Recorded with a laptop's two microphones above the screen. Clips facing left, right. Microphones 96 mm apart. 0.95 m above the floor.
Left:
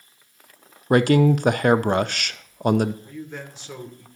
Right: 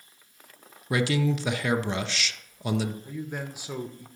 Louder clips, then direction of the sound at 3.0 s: Right 1 dB; 10° right (ahead or behind).